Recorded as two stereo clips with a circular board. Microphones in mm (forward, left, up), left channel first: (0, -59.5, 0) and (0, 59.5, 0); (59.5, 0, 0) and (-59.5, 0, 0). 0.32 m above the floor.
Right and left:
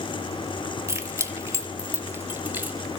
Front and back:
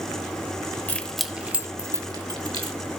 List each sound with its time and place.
0.9 s keys jangling: 60° left, 0.7 m; by 2.8 s 160° left, 1.1 m